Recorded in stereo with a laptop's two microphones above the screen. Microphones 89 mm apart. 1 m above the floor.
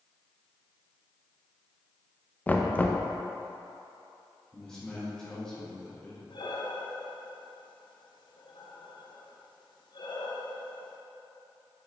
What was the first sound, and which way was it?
Knocking, 20° left (ahead or behind).